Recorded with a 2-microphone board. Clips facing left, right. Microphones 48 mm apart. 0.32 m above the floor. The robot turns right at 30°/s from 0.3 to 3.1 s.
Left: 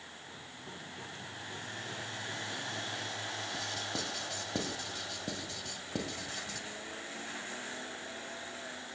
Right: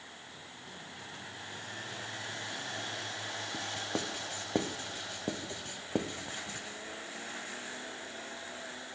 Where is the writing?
30° right (ahead or behind), 0.5 m.